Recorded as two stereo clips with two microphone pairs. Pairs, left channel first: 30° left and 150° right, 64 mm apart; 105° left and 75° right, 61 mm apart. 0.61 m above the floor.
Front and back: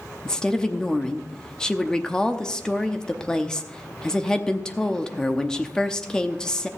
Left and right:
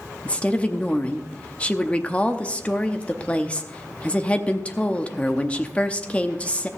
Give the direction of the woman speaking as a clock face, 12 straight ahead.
9 o'clock.